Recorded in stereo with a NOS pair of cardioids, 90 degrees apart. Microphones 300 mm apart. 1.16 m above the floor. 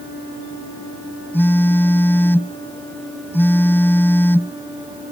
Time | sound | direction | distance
1.3 | a phone buzzing | 5° left | ?